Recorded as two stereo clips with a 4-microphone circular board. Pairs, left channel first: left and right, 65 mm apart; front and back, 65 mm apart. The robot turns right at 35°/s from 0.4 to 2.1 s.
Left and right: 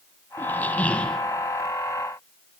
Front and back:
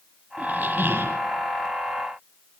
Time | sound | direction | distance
0.4 | a squeak | 125° left | 0.6 m